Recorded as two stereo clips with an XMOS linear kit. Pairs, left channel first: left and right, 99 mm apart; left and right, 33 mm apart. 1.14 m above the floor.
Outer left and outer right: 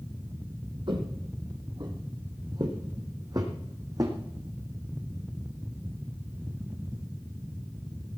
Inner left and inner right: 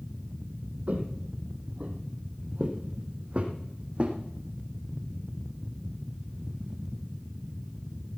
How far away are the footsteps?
About 2.5 m.